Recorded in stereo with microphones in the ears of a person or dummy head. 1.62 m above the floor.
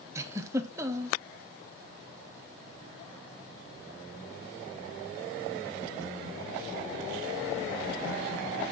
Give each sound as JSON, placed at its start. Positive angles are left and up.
{"t": 0.1, "sound": "a giggle", "side_deg": -20, "distance_m": 1.0}